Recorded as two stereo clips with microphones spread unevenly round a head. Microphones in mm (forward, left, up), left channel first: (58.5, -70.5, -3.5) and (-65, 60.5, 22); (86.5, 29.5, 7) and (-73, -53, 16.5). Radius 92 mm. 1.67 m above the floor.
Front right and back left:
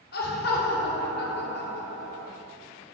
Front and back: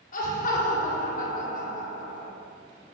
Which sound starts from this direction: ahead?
Laughter, at 0.1 s.